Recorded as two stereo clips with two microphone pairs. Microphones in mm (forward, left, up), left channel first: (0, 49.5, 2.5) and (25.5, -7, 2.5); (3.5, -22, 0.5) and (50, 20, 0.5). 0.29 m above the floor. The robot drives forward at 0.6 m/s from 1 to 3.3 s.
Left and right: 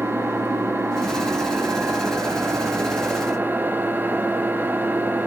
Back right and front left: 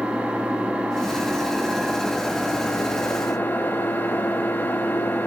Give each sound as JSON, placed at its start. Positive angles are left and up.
{"t": 0.0, "sound": "an engine running", "azimuth_deg": -25, "distance_m": 1.7}